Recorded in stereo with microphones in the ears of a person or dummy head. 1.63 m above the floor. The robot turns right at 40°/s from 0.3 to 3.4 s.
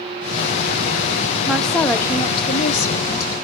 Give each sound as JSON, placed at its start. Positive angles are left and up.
{"t": 1.5, "sound": "a woman speaking", "azimuth_deg": -5, "distance_m": 0.7}